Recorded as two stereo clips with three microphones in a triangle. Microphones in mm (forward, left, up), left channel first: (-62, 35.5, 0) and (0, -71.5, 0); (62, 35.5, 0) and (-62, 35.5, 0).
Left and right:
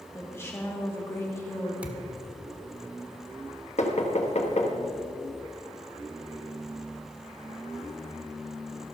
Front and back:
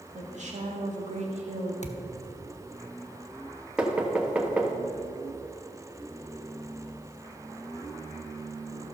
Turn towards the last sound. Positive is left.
turn(degrees=100)